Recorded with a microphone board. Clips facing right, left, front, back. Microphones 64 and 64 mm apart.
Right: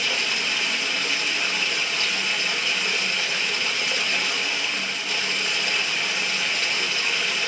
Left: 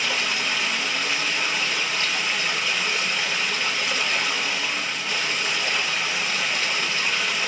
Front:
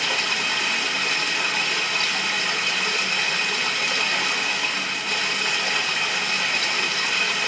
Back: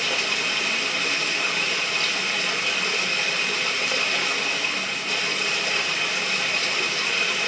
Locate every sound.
0.0 s running water: 40° left, 2 m